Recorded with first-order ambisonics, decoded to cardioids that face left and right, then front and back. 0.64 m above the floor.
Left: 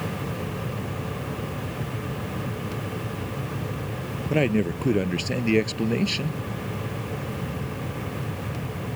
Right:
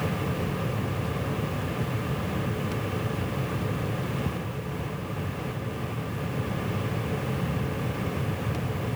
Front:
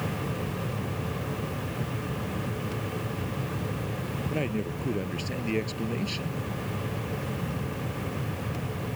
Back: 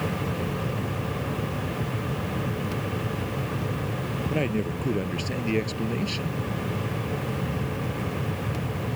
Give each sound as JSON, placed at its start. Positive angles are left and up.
{"t": 4.3, "sound": "a man speaking", "azimuth_deg": 100}